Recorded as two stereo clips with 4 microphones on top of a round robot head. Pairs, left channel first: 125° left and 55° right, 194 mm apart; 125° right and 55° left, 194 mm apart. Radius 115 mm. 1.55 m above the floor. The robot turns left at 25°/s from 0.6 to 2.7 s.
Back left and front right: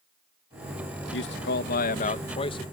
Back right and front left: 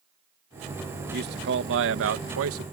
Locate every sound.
1.1 s a man speaking: 95° left; by 2.6 s 55° left